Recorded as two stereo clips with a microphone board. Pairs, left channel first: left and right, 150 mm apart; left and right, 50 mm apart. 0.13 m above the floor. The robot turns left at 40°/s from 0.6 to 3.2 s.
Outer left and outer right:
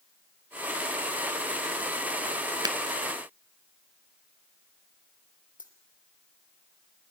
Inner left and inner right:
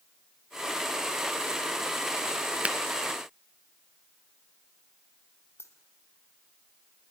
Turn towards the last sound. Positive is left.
turn(degrees=55)  # may be behind; listen again after turning